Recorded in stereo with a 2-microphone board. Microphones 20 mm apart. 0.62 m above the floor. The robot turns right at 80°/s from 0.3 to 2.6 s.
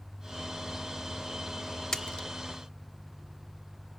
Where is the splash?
25° left (ahead or behind), 0.7 m; by 2.3 s 50° left (ahead or behind), 0.7 m.